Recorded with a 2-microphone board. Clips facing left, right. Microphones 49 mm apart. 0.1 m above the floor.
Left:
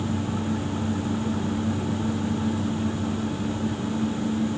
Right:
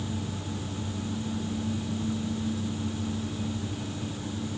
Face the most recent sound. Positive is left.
No sound to turn to.